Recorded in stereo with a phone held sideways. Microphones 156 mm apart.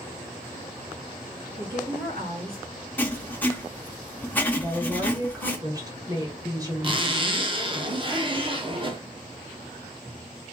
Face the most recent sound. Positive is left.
turn(degrees=-35)  # may be behind; listen again after turning